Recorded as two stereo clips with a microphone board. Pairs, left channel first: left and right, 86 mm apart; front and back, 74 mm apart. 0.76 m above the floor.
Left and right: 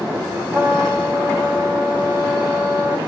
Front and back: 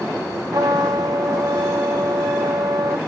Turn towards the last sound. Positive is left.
turn(degrees=-155)